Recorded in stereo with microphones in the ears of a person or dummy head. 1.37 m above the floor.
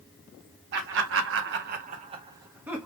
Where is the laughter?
55° right (ahead or behind), 0.8 m; by 2.9 s 5° right (ahead or behind), 0.8 m.